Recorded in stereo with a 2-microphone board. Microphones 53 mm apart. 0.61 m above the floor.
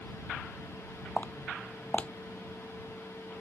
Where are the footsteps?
25° left (ahead or behind).